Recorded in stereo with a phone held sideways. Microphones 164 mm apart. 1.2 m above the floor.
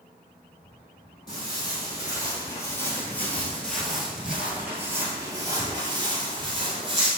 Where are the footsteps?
25° left (ahead or behind), 2.0 m; by 7.1 s 35° right (ahead or behind), 1.8 m.